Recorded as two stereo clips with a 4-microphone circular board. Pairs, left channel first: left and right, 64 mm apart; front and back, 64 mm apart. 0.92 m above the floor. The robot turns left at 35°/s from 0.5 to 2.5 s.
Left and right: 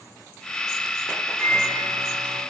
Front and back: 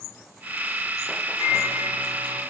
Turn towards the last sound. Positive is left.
turn(degrees=0)